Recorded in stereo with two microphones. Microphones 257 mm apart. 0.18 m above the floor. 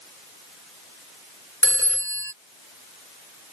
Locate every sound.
1.6 s a phone ringing: 50° left (ahead or behind)